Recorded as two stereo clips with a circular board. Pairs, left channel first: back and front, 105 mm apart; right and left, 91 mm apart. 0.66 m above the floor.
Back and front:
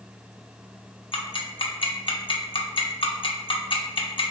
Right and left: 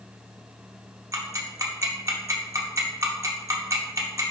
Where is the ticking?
145° left, 0.7 m.